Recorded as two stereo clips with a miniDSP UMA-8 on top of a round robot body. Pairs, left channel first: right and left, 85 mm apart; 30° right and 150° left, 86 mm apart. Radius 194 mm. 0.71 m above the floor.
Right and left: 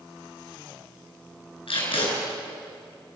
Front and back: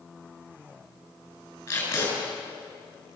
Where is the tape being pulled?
90° right, 7 m.